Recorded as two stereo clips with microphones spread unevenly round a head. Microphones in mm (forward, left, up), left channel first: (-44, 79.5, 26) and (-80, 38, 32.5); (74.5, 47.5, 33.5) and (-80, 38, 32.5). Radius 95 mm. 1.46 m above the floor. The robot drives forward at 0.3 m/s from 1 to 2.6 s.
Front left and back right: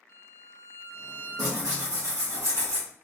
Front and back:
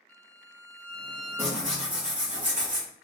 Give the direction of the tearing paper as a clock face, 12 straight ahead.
3 o'clock.